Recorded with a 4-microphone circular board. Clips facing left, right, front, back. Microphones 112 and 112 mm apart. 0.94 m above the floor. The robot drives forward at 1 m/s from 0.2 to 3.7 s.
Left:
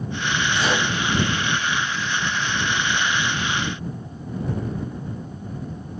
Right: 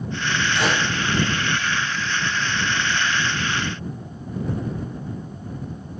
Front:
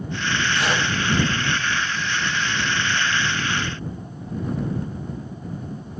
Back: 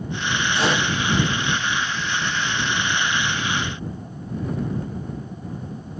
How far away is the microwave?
About 7 m.